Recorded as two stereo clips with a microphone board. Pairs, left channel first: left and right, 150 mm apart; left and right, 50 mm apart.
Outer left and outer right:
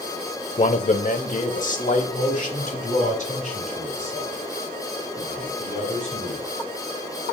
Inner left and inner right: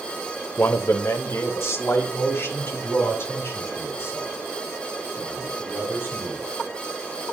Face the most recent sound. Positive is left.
turn(degrees=50)  # may be behind; listen again after turning